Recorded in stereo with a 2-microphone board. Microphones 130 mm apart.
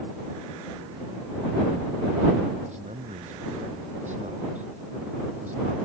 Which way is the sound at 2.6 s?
70° right (ahead or behind).